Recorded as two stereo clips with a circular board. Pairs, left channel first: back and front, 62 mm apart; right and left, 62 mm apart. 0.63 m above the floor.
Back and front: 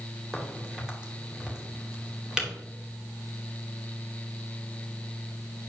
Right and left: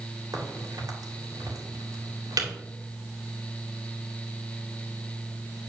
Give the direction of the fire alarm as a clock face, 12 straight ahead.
I don't hear a fire alarm.